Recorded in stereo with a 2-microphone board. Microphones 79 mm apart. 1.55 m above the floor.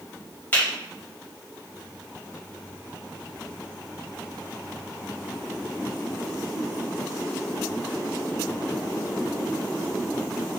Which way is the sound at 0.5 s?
25° left (ahead or behind).